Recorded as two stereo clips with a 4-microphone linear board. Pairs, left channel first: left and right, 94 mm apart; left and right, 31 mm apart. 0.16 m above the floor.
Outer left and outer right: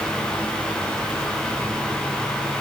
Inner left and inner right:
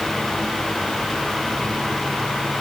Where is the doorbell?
No doorbell in this recording.